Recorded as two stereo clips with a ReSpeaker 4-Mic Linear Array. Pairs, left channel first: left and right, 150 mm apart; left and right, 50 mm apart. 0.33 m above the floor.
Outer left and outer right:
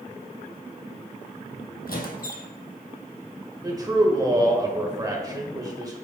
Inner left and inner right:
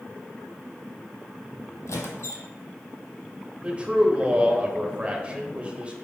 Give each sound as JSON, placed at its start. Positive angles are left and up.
{"t": 1.9, "sound": "a squeak", "side_deg": 80, "distance_m": 1.2}
{"t": 3.6, "sound": "a man speaking", "side_deg": -25, "distance_m": 1.3}